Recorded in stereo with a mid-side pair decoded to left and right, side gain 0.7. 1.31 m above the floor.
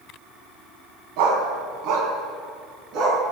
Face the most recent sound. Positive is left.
turn(degrees=-50)